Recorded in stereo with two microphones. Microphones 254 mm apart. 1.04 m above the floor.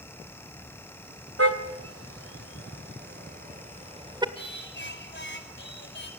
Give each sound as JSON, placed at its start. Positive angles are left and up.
{"t": 1.4, "sound": "a car horn", "side_deg": -65, "distance_m": 3.0}
{"t": 4.3, "sound": "singing", "side_deg": 45, "distance_m": 5.0}